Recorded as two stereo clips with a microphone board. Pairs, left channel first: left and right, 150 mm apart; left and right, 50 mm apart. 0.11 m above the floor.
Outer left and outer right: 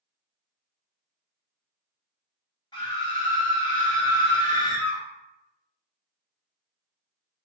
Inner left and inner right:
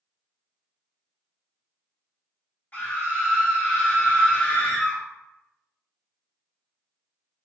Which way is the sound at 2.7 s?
30° left (ahead or behind).